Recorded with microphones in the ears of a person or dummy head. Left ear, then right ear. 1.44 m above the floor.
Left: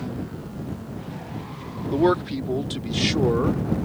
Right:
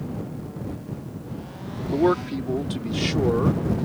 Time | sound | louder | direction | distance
1.9 | a man speaking | left 1 dB | 10° left (ahead or behind) | ?